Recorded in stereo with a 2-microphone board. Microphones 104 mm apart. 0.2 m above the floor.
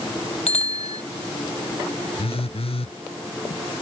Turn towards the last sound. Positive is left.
turn(degrees=70)  # may be behind; listen again after turning